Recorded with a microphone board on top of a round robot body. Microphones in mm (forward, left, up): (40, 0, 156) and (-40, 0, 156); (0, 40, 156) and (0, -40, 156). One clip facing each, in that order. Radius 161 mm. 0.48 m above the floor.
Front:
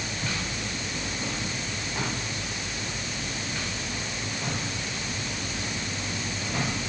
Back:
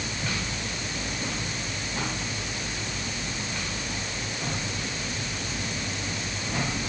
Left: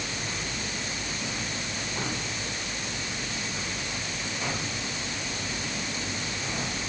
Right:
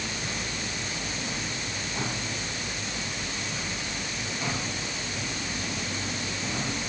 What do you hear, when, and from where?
Only background noise.